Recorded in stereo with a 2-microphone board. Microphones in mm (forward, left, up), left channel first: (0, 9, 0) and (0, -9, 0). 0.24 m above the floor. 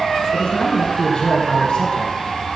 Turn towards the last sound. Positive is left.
turn(degrees=70)  # may be behind; listen again after turning